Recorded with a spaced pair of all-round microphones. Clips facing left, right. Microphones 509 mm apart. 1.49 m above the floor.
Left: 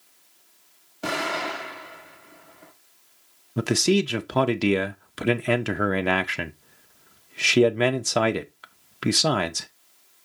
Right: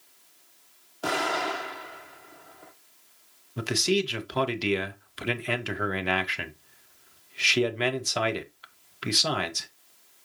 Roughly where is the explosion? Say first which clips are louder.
Even; left.